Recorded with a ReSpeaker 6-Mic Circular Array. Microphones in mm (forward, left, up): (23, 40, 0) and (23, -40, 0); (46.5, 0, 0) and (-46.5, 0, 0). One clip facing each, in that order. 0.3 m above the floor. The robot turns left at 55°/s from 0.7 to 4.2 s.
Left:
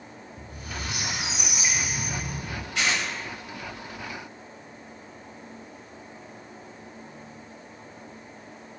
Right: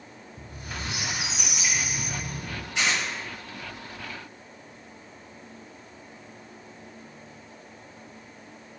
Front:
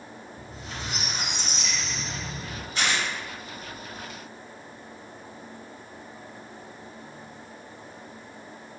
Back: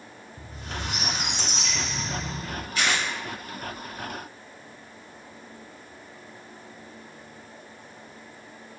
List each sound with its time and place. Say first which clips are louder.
0.4 s a squeak: even, back 4 dB; 145° right, 1.0 m; by 2.6 s 110° left, 1.0 m
2.8 s tearing paper: even, back 1 dB; 35° right, 1.4 m; by 3.0 s 55° right, 1.4 m